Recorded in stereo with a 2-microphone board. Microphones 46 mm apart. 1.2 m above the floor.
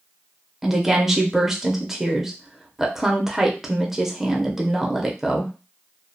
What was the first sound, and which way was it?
A woman speaking, 10° right (ahead or behind).